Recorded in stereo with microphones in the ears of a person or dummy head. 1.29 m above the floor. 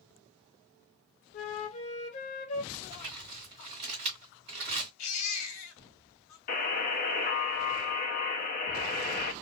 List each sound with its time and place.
1.3 s a flute: 35° left (ahead or behind), 0.6 m
2.7 s crumpling: 25° right (ahead or behind), 1.7 m
5.0 s a baby crying: 85° left, 1.0 m
6.5 s a buzzer: 45° left (ahead or behind), 0.7 m